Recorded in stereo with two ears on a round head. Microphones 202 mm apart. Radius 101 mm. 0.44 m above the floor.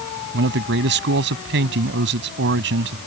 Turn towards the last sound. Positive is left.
turn(degrees=-55)  # may be behind; listen again after turning